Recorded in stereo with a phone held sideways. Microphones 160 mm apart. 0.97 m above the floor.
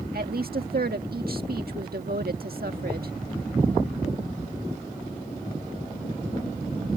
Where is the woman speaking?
75° right (ahead or behind).